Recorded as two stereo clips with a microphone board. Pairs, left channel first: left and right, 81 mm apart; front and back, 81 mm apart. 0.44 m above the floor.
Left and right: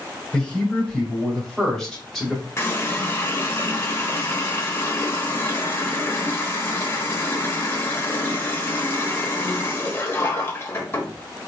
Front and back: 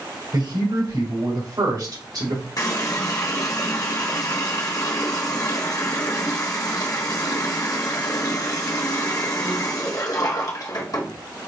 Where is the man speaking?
170° left, 3 m; by 2.5 s 175° left, 2 m.